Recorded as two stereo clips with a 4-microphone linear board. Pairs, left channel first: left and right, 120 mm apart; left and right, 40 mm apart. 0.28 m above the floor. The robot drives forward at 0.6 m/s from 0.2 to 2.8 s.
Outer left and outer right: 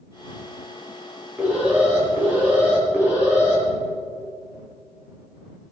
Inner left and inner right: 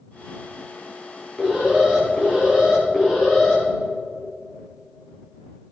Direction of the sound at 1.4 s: 15° right (ahead or behind).